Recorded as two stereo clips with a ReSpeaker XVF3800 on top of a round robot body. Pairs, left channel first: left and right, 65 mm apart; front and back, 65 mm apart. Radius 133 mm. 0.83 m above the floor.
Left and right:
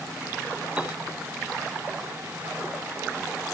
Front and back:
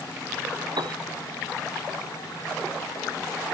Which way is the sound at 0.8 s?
165° right.